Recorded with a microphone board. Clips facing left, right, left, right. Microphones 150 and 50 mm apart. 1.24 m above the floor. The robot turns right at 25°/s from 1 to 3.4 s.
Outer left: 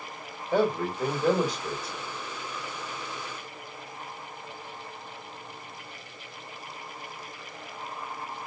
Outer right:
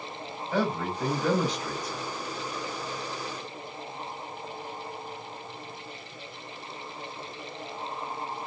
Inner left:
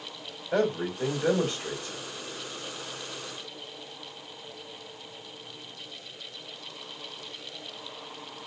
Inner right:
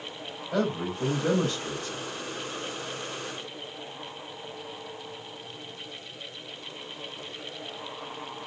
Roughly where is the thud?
I don't hear a thud.